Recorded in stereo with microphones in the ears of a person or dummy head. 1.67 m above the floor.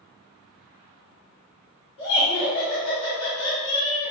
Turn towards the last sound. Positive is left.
turn(degrees=25)  # may be behind; listen again after turning